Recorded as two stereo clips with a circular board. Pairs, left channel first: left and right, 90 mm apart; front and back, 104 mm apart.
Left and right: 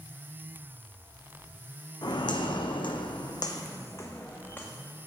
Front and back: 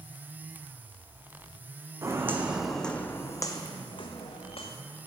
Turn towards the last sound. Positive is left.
turn(degrees=20)